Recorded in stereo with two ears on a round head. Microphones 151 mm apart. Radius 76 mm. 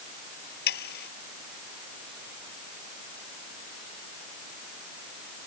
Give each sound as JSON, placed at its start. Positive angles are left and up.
{"t": 0.7, "sound": "sawing", "side_deg": 65}